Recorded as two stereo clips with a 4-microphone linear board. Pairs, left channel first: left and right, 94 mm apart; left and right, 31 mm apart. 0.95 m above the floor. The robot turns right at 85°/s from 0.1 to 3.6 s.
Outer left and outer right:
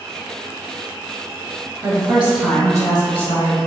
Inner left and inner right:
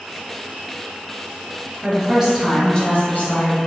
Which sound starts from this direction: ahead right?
A woman speaking, at 1.8 s.